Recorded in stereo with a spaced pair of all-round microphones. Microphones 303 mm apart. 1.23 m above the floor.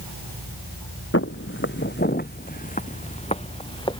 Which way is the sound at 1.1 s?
45° left (ahead or behind).